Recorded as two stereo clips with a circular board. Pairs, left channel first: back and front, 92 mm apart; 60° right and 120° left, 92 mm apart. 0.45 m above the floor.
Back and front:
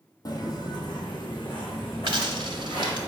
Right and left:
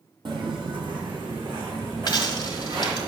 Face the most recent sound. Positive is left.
turn(degrees=-20)